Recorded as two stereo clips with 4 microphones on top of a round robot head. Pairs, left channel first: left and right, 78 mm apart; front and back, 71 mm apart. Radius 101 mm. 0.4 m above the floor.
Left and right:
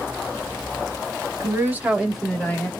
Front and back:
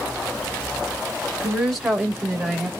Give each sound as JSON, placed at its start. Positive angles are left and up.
{"t": 1.4, "sound": "a woman speaking", "azimuth_deg": -95, "distance_m": 1.5}